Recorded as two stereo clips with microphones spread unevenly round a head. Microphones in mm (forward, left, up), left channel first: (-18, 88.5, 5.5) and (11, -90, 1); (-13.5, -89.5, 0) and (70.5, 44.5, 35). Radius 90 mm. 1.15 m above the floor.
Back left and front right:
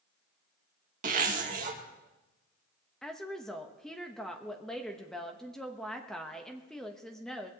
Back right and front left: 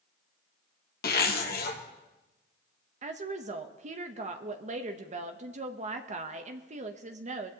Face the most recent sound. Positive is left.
turn(degrees=10)